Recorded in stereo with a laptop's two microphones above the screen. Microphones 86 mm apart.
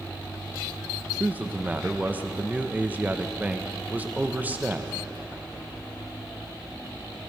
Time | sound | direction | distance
1.2 | a man speaking | 20° right (ahead or behind) | 0.6 m